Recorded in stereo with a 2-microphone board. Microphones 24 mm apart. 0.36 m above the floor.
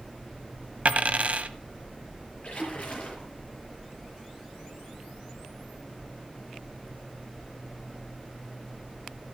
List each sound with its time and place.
0.8 s a dropped coin: 60° right (ahead or behind), 1.0 m
2.4 s a splash: 45° left (ahead or behind), 6 m